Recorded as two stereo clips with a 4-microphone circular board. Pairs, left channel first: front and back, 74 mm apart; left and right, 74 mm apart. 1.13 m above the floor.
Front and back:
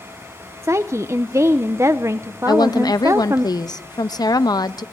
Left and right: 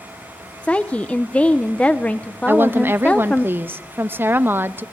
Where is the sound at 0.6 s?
155° left, 0.8 m.